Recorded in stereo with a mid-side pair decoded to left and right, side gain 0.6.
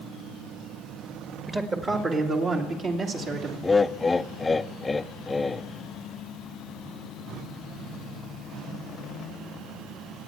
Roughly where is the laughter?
Ahead.